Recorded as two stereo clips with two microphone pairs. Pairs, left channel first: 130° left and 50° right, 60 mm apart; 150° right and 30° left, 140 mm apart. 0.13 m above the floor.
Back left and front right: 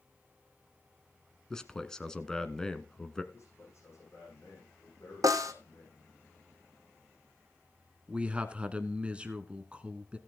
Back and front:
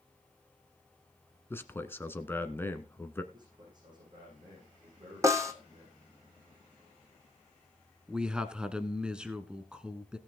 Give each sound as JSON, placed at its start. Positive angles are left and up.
{"t": 1.5, "sound": "a man speaking", "azimuth_deg": 180, "distance_m": 1.1}
{"t": 3.3, "sound": "a man speaking", "azimuth_deg": 90, "distance_m": 7.0}
{"t": 5.2, "sound": "a snare drum", "azimuth_deg": -40, "distance_m": 1.3}
{"t": 8.1, "sound": "a man speaking", "azimuth_deg": -40, "distance_m": 1.2}